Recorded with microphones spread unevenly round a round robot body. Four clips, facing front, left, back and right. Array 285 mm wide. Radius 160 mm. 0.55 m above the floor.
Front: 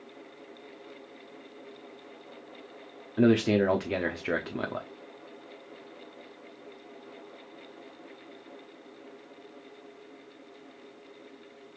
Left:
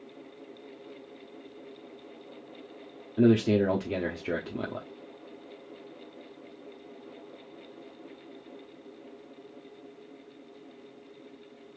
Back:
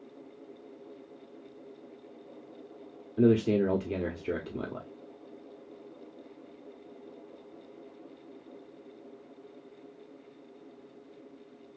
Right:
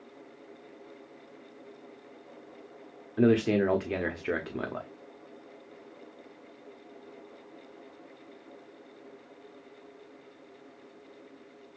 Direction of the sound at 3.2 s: 115° left.